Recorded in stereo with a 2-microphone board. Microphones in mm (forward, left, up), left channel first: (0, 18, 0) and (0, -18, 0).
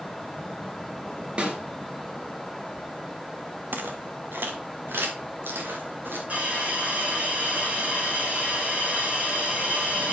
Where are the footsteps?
80° right, 1.9 m; by 6.2 s 90° right, 5 m.